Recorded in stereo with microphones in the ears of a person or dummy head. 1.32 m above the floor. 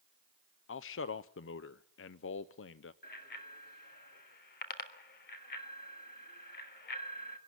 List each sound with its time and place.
0.7 s a man speaking: 50° left (ahead or behind), 0.5 m
3.0 s a bicycle bell: 55° left (ahead or behind), 2.5 m